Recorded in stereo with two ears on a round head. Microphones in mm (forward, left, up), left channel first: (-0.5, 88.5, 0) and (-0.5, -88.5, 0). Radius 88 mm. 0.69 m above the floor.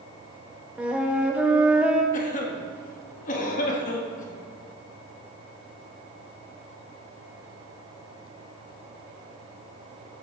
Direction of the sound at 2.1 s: 40° left (ahead or behind).